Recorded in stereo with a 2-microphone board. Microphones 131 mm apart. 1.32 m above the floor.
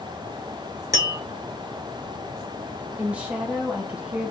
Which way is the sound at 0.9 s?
30° right (ahead or behind).